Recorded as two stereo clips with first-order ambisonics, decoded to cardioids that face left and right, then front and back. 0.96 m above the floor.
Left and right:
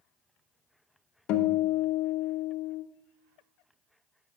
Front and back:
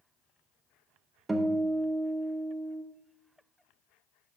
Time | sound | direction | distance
1.3 | a guitar | 95° left | 0.7 m